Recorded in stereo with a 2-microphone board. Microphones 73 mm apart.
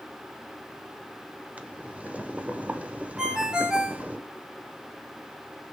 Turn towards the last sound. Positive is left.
turn(degrees=-10)  # may be behind; listen again after turning